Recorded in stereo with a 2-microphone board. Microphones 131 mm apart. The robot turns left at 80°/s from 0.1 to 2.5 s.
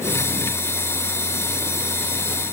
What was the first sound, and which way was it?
Only background noise.